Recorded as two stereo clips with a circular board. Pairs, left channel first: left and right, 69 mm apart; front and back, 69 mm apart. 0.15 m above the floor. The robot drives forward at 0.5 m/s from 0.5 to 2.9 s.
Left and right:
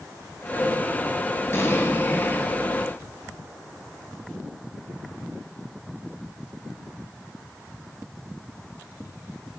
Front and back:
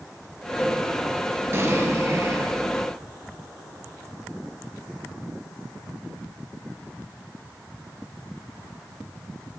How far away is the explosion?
About 1.8 m.